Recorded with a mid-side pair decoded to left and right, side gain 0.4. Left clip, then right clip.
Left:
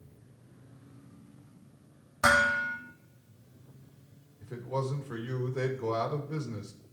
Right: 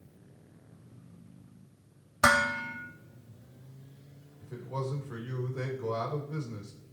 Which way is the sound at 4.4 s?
35° left.